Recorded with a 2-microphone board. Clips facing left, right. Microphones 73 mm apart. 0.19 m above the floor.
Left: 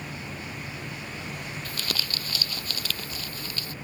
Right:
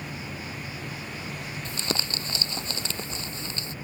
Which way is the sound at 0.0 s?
Centre (ahead or behind).